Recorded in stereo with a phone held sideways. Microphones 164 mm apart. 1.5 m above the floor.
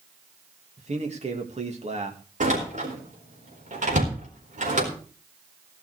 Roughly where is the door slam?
Right.